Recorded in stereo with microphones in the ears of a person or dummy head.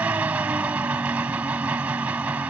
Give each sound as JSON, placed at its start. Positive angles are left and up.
{"t": 0.0, "sound": "an engine running", "side_deg": -10}